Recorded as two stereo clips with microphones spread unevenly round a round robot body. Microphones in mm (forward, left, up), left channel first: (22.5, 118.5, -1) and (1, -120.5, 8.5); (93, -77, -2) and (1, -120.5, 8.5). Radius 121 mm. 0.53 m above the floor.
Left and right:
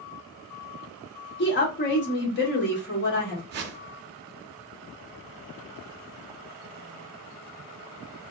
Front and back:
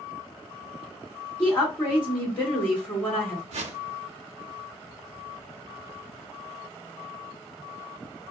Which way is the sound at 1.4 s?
90° left.